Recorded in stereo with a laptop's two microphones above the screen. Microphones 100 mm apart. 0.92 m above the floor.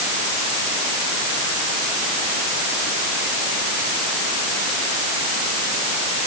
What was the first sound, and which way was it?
Only background noise.